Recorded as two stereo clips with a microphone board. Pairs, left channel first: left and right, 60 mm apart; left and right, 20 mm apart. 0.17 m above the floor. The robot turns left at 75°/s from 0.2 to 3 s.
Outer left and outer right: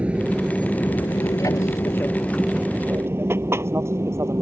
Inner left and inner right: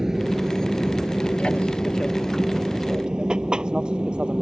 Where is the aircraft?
20° right (ahead or behind); by 4.4 s 50° right (ahead or behind).